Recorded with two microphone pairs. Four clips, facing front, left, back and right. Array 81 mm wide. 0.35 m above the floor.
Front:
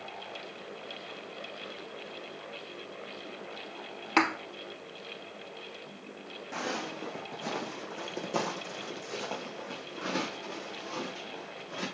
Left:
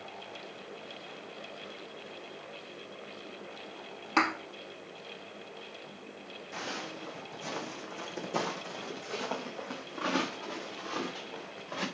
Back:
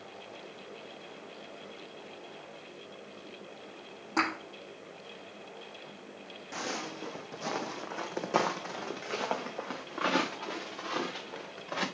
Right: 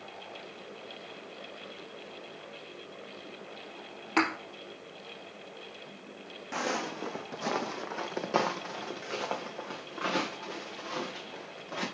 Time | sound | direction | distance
4.2 | a thud | straight ahead | 1.8 m
6.5 | footsteps | 75° right | 1.2 m